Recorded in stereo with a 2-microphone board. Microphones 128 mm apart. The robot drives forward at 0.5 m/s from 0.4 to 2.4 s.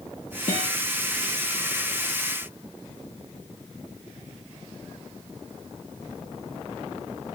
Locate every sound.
0.5 s a guitar: 70° left (ahead or behind), 3 m